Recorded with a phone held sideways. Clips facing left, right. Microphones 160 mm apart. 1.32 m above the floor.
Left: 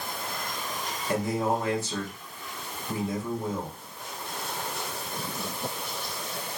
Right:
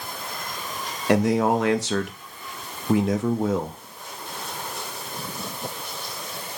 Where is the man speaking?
80° right, 0.5 m.